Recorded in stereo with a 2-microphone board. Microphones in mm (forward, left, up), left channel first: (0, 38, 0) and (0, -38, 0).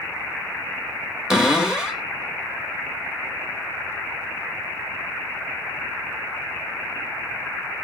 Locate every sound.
1.3 s a cupboard door: 10° right (ahead or behind), 1.4 m